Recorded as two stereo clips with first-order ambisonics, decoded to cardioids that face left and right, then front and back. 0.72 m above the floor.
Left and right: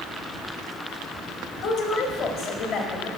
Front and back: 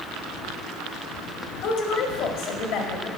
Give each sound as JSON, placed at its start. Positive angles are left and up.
{"t": 1.6, "sound": "a woman speaking", "azimuth_deg": 25, "distance_m": 1.7}